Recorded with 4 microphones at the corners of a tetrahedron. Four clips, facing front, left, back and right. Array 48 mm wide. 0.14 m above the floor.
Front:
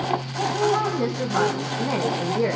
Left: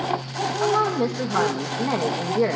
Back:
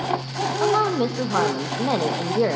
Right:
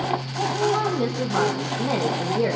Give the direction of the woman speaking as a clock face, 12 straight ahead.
6 o'clock.